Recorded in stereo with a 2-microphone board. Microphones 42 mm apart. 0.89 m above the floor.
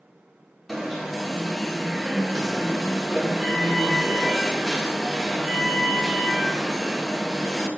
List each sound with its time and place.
0.7 s an alarm: 5° left (ahead or behind), 1.5 m